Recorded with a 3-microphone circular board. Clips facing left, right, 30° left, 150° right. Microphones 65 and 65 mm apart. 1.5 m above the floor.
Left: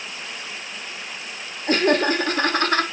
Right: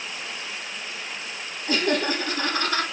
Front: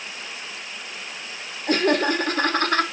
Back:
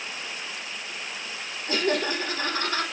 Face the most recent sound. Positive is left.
turn(degrees=55)